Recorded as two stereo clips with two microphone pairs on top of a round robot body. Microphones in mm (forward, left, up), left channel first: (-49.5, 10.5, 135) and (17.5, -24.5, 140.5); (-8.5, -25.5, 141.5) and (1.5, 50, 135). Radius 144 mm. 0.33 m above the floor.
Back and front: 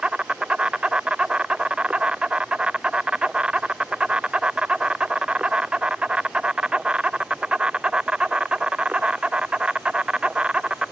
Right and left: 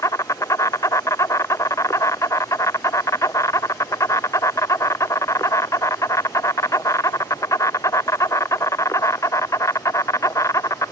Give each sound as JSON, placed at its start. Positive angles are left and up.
{"t": 0.0, "sound": "an insect", "azimuth_deg": -100}